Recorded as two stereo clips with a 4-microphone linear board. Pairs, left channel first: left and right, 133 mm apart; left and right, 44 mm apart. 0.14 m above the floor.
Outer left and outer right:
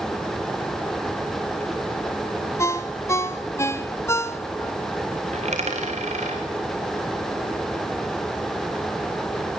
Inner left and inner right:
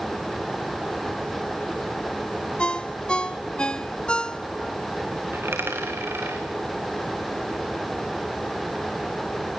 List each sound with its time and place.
2.6 s a ringtone: 20° left (ahead or behind), 0.9 m
5.3 s a dropped coin: 55° right (ahead or behind), 3.5 m